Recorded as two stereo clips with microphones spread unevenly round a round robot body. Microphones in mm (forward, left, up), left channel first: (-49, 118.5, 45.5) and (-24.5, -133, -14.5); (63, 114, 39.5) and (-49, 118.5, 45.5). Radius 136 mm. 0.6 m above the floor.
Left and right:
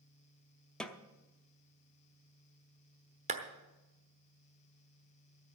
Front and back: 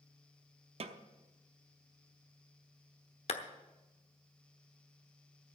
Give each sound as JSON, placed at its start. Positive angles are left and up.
{"t": 0.8, "sound": "a snare drum", "azimuth_deg": -170, "distance_m": 0.8}
{"t": 3.3, "sound": "a clap", "azimuth_deg": -25, "distance_m": 1.0}